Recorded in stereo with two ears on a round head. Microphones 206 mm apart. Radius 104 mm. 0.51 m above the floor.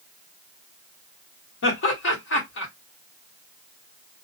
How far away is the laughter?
About 1.2 m.